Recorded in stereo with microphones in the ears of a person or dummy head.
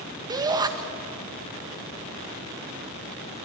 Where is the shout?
20° right (ahead or behind), 1.7 m.